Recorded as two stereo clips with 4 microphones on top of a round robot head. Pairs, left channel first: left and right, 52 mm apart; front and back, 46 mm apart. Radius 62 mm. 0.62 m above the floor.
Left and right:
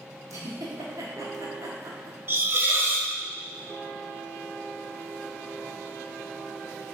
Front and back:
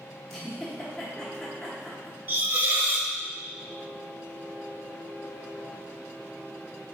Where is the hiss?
130° right, 0.7 m.